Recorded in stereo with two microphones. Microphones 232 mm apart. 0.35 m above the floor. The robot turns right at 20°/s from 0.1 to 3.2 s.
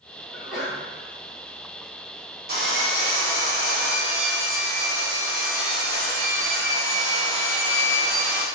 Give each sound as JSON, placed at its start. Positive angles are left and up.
{"t": 0.3, "sound": "a sneeze", "side_deg": 0, "distance_m": 1.8}
{"t": 2.5, "sound": "sawing", "side_deg": -40, "distance_m": 1.5}